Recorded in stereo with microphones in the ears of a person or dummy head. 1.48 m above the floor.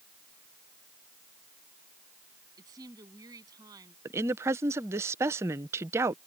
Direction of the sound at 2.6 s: 15° right (ahead or behind).